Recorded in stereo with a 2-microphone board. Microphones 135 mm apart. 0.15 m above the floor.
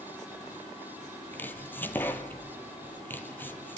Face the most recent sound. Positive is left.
turn(degrees=15)  # may be behind; listen again after turning